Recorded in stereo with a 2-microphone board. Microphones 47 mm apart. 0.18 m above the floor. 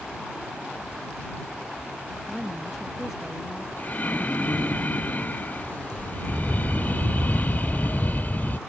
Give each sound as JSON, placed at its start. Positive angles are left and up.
{"t": 2.3, "sound": "a woman speaking", "side_deg": 0}
{"t": 3.8, "sound": "breathing", "side_deg": 35}